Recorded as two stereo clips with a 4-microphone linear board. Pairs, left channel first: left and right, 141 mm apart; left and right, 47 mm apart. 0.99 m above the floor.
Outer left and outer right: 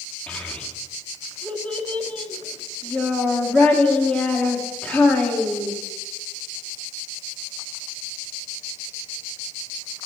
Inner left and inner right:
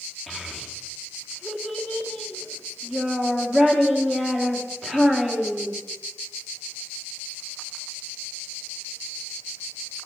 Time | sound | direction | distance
0.3 | a child speaking | 5° left (ahead or behind) | 1.4 m